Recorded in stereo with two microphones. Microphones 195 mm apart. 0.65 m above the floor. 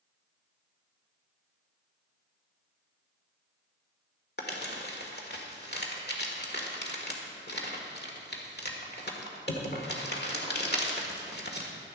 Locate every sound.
4.4 s crumpling: 60° left (ahead or behind), 1.7 m